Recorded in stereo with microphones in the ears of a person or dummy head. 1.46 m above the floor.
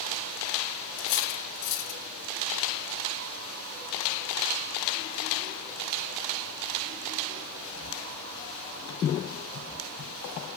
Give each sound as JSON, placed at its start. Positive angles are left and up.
{"t": 1.0, "sound": "cutlery clinking", "side_deg": 55, "distance_m": 3.0}